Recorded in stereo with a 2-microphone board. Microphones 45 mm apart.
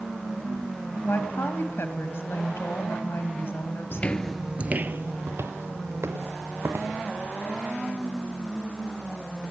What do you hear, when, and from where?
1.0 s a woman speaking: 65° left (ahead or behind), 2.5 m
3.9 s footsteps: 40° left (ahead or behind), 0.6 m; by 7.0 s 80° right, 2.5 m